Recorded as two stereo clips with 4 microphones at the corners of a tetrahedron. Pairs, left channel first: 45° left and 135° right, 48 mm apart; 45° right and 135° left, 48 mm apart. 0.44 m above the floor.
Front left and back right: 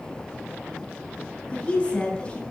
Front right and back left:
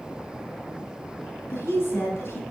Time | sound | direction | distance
1.5 | a woman speaking | 25° right | 3 m